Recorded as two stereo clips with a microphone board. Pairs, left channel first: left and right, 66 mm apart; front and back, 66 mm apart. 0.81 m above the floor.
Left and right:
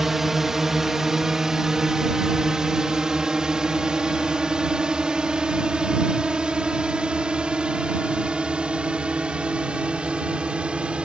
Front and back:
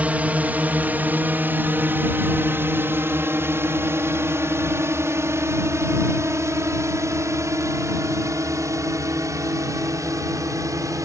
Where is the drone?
165° right; by 11.1 s 160° right.